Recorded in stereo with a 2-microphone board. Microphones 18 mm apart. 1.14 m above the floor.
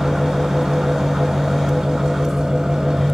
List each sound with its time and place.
0.0 s an engine running: 60° right (ahead or behind), 1.1 m